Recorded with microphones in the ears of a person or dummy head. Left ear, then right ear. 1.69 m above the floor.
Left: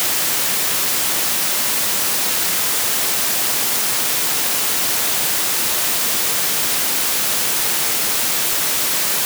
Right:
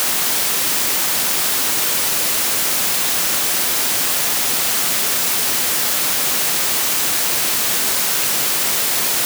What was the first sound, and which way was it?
Only background noise.